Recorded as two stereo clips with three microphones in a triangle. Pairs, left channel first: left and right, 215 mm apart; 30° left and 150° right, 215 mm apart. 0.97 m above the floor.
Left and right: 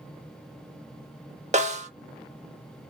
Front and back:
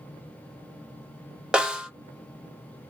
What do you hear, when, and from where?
1.5 s a snare drum: 65° right, 0.8 m